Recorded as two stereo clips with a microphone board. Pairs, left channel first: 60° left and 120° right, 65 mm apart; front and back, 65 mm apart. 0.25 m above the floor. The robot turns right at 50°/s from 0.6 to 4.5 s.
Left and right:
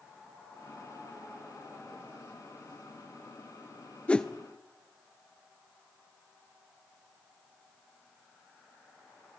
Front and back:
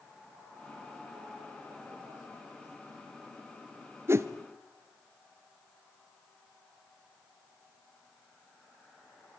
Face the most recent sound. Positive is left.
turn(degrees=150)